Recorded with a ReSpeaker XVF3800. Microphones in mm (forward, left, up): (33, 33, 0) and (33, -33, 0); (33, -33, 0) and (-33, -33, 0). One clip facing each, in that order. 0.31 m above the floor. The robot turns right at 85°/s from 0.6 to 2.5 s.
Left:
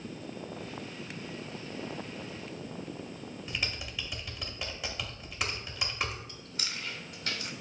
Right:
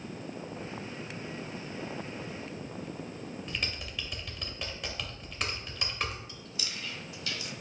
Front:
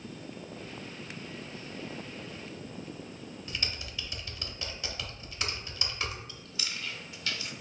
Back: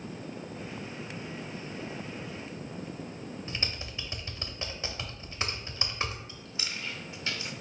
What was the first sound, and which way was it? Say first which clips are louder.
Typing on a keyboard: left 3 dB, front 2 dB; 170° left.